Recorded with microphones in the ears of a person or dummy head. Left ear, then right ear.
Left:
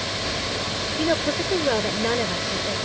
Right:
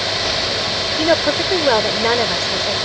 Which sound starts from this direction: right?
A woman speaking, at 1.0 s.